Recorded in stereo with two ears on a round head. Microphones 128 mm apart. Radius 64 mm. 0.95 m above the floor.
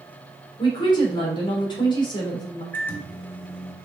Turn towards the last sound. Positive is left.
turn(degrees=15)  # may be behind; listen again after turning